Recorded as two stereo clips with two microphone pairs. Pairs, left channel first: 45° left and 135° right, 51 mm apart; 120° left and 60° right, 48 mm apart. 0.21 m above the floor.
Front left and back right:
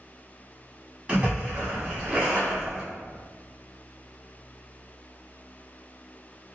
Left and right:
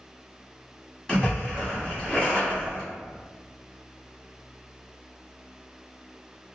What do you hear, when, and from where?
1.1 s a splash: 170° left, 1.4 m